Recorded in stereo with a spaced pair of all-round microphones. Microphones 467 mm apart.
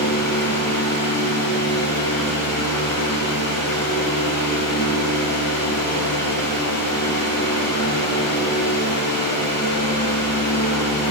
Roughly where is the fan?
Left.